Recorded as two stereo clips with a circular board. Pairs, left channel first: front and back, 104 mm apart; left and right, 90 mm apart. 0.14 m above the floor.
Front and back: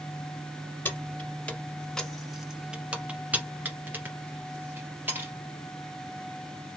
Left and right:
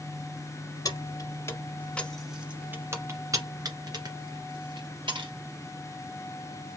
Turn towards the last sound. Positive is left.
turn(degrees=-110)